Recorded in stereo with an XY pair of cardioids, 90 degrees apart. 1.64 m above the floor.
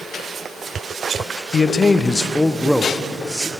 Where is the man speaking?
45° left, 0.7 m; by 3.5 s 10° right, 1.3 m.